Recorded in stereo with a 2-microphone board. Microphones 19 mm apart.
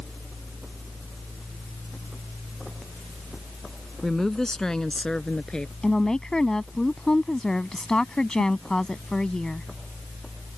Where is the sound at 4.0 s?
25° left (ahead or behind); by 5.7 s 50° left (ahead or behind).